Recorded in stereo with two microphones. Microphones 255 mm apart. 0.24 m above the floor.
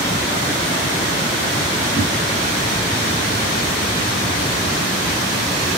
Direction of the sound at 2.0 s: 55° left (ahead or behind).